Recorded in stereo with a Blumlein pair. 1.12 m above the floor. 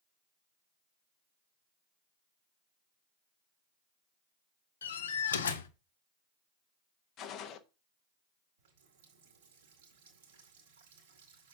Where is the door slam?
65° left, 1.0 m.